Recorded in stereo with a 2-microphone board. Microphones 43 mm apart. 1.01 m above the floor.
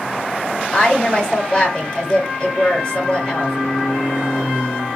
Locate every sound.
0.7 s a woman speaking: 25° left (ahead or behind), 1.3 m